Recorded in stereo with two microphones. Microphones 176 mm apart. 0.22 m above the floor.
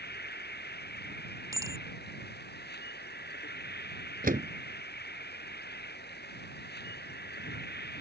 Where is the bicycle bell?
20° right (ahead or behind).